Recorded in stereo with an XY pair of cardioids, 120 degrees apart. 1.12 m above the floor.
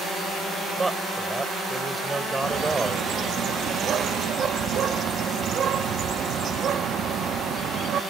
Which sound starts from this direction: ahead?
A man speaking, at 0.8 s.